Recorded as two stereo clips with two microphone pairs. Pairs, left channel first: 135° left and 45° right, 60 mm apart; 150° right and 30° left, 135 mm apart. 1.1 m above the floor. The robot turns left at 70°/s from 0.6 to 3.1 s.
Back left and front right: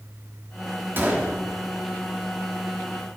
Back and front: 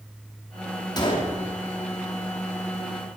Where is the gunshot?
95° right, 3 m; by 1.4 s 125° right, 3 m.